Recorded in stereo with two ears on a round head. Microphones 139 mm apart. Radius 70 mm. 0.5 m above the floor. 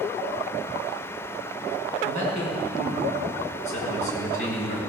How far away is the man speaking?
About 5 m.